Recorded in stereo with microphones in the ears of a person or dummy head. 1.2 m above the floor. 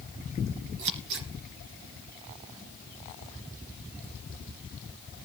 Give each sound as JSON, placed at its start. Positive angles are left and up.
{"t": 0.8, "sound": "scissors", "side_deg": -65, "distance_m": 3.0}